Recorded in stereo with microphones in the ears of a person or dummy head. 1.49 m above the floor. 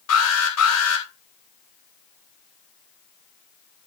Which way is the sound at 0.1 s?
75° left (ahead or behind).